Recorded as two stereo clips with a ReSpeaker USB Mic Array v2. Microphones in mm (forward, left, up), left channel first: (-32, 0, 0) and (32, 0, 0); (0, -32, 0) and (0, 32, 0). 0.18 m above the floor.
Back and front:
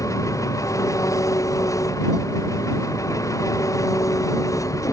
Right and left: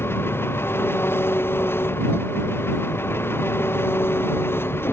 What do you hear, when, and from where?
0.0 s an engine running: 145° right